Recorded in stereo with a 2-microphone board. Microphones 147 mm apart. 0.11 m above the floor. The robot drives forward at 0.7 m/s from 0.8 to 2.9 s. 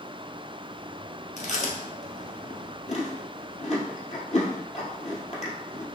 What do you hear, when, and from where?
1.4 s chewing: 50° left (ahead or behind), 1.1 m